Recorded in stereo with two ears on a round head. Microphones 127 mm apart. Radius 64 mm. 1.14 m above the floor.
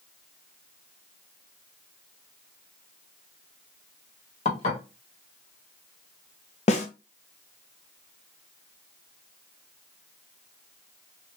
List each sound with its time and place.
4.5 s dishes clattering: 45° left (ahead or behind), 1.1 m
6.7 s a snare drum: 45° left (ahead or behind), 0.7 m